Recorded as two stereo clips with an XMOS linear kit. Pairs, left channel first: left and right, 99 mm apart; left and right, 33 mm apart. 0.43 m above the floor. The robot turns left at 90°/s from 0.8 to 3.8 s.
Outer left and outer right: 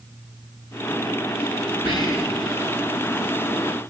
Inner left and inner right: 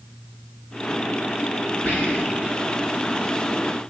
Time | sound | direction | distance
1.9 | whispering | 55° left (ahead or behind) | 4.5 m